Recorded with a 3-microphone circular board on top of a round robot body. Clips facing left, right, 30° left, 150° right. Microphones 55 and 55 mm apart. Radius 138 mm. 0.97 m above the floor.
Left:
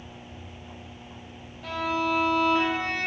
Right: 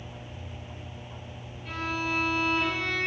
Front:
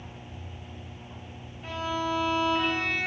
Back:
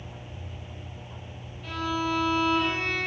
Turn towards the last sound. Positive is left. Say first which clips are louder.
# left 5 dB, back 1 dB
turn(degrees=95)